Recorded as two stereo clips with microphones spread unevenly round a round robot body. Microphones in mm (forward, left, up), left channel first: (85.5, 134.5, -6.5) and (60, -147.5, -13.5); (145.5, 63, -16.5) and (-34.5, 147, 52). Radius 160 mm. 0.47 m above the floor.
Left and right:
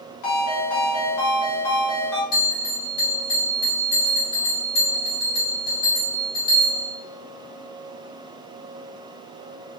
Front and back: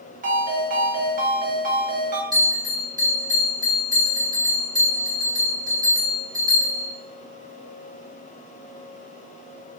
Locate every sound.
0.2 s a ringtone: 95° left, 1.2 m
2.3 s a bell: 75° left, 1.9 m